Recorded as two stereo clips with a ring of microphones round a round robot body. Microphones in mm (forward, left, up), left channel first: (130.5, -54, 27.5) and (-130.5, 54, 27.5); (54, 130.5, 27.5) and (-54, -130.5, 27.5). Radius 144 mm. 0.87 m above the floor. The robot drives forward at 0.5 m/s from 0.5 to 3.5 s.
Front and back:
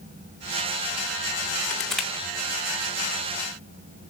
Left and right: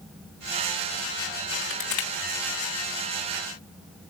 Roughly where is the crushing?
Ahead left.